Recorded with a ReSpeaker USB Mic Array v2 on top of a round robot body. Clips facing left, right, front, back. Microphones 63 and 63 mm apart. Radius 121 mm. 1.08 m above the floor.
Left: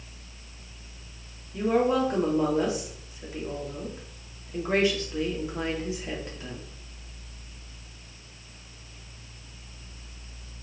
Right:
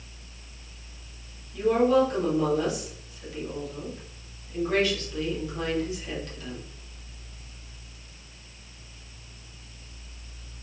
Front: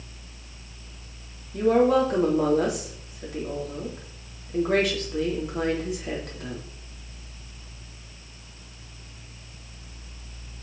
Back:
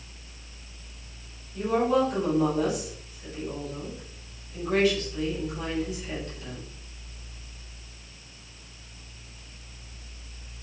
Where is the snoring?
I don't hear snoring.